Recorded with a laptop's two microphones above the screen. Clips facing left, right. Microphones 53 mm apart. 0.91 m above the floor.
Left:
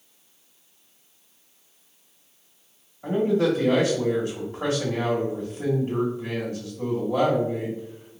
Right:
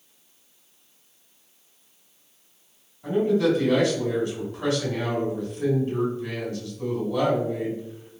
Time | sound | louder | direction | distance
3.0 | a man speaking | even | 55° left (ahead or behind) | 1.3 m